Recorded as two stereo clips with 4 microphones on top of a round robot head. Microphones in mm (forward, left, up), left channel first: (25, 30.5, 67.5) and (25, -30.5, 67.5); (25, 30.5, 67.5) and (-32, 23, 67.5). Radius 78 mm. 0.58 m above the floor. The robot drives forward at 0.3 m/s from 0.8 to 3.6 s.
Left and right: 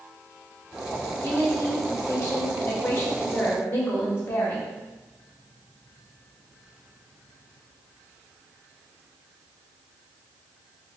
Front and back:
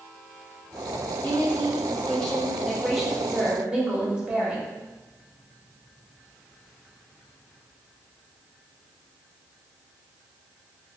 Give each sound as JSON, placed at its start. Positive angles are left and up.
{"t": 1.2, "sound": "a woman speaking", "azimuth_deg": 55, "distance_m": 1.0}